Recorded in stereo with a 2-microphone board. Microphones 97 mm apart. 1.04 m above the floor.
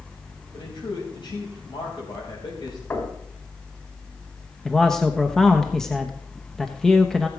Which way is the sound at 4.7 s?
5° left (ahead or behind).